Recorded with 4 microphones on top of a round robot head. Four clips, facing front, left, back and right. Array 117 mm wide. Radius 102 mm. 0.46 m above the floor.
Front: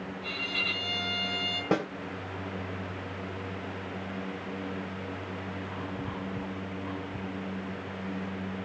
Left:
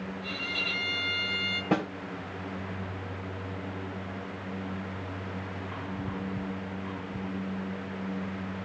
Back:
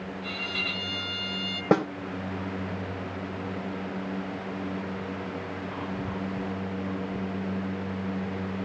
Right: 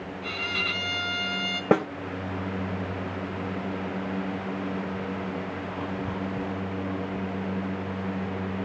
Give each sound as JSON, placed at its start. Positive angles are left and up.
{"t": 0.2, "sound": "a violin", "azimuth_deg": -95, "distance_m": 4.0}
{"t": 1.7, "sound": "a snare drum", "azimuth_deg": -125, "distance_m": 2.0}